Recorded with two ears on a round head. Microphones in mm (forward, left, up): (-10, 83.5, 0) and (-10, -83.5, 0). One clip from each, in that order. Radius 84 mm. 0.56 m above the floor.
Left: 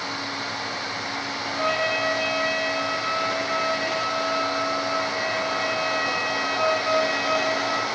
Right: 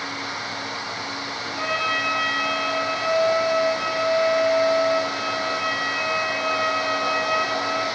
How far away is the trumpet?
About 5.5 m.